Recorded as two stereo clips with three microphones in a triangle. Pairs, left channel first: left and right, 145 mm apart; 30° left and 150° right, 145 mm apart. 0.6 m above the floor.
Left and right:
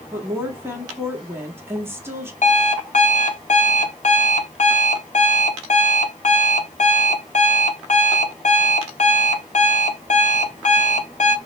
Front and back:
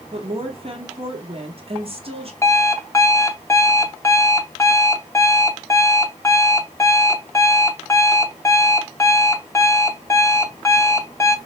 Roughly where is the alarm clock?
Left.